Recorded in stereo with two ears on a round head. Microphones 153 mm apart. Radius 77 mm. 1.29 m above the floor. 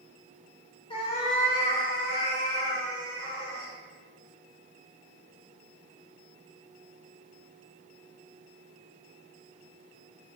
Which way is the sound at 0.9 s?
30° left (ahead or behind).